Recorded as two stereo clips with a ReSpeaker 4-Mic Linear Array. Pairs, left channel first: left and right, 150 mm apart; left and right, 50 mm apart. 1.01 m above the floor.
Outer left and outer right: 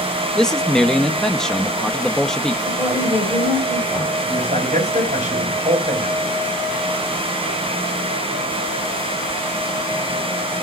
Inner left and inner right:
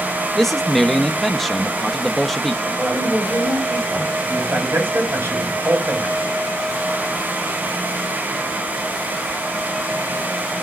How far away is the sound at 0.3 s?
About 1.0 m.